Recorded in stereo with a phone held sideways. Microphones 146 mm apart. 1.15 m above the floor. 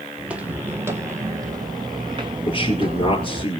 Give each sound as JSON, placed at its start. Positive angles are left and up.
{"t": 0.2, "sound": "footsteps", "side_deg": -5, "distance_m": 2.5}
{"t": 2.5, "sound": "a man speaking", "side_deg": 35, "distance_m": 4.5}